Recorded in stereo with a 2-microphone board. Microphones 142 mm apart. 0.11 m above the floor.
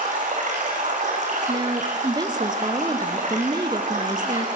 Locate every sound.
0.0 s running water: 55° right (ahead or behind), 5 m
1.5 s a woman speaking: 30° right (ahead or behind), 1.4 m